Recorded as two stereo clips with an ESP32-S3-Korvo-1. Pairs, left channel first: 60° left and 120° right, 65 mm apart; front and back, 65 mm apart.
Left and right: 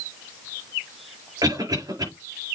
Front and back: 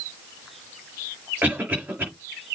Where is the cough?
115° right, 5 m.